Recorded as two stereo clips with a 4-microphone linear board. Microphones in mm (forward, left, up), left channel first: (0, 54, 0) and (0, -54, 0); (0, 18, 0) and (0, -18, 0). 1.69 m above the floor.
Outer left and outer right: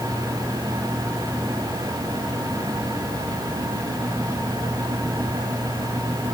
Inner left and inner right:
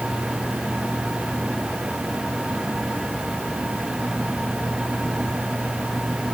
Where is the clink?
I don't hear a clink.